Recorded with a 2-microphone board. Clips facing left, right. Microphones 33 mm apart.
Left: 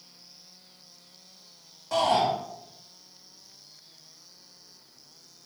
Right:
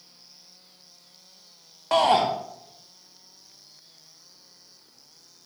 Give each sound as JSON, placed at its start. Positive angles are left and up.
{"t": 1.9, "sound": "a shout", "side_deg": -50, "distance_m": 0.7}